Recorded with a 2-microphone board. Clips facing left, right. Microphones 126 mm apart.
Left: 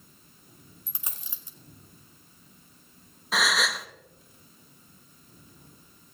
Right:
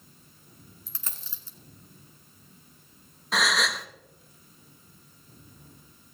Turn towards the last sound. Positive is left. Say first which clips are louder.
# even
turn(degrees=0)  # may be behind; listen again after turning